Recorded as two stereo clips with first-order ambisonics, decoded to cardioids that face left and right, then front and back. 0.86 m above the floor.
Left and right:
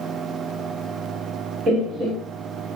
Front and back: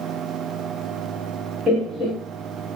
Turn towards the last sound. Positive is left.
turn(degrees=-130)